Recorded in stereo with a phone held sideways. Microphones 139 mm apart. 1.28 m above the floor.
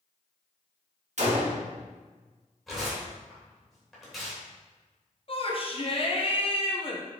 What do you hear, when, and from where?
1.2 s a gunshot: 60° right (ahead or behind), 1.5 m
2.7 s tearing paper: centre (ahead or behind), 3 m
5.3 s a shout: 45° left (ahead or behind), 1.0 m